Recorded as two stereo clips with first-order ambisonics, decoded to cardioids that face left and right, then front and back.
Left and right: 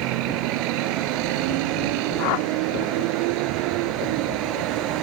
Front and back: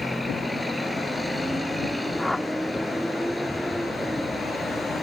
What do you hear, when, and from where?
0.0 s a vehicle: 95° right
2.2 s a whoosh: 85° left